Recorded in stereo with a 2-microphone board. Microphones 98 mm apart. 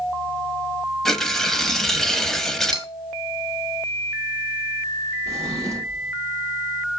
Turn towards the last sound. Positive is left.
turn(degrees=-35)  # may be behind; listen again after turning